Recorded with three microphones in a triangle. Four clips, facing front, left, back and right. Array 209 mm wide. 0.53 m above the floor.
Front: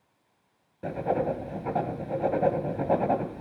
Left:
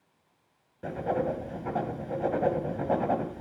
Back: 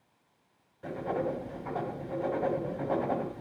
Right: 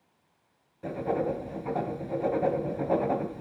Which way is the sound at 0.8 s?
25° left.